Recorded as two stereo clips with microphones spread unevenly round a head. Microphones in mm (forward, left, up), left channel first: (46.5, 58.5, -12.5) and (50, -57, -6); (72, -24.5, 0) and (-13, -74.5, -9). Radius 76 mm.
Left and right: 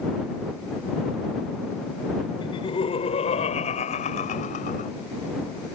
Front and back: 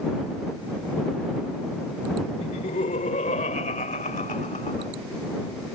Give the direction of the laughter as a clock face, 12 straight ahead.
10 o'clock.